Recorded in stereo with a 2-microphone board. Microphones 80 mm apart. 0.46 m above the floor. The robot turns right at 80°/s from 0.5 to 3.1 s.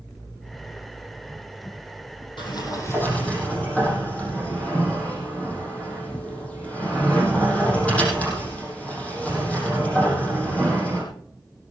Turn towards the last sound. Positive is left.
turn(degrees=165)